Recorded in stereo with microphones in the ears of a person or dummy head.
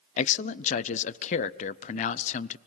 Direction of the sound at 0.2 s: 40° left (ahead or behind).